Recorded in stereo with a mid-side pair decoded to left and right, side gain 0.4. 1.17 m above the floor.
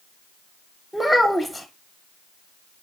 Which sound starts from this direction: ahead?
A child speaking, at 0.9 s.